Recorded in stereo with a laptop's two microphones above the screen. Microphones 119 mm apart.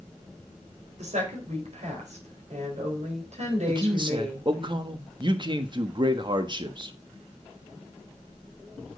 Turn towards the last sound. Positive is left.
turn(degrees=-40)  # may be behind; listen again after turning